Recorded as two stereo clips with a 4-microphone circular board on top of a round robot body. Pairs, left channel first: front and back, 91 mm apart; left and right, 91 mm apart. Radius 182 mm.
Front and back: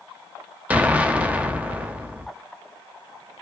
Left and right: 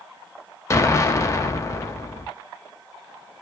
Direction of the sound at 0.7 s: 115° left.